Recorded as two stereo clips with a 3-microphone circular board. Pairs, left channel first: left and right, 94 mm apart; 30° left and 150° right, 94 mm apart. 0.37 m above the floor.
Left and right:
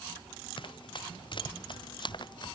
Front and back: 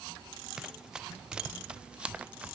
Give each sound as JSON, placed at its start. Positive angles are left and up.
{"t": 0.6, "sound": "running footsteps", "azimuth_deg": 125}